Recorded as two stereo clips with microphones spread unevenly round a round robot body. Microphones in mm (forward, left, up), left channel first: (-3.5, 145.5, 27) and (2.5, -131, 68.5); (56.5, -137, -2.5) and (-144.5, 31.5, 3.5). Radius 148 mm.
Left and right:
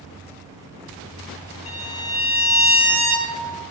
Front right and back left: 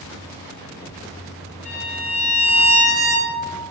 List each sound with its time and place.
1.6 s a violin: 20° left, 1.0 m